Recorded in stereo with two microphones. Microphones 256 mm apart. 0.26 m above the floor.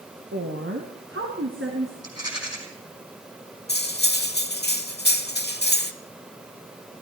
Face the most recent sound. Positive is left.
turn(degrees=40)  # may be behind; listen again after turning